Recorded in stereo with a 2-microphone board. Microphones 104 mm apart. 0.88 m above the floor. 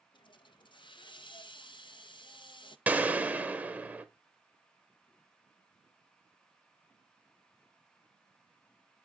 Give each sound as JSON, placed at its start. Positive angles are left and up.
{"t": 0.1, "sound": "a hiss", "side_deg": 50, "distance_m": 0.5}
{"t": 2.9, "sound": "a gunshot", "side_deg": -15, "distance_m": 0.8}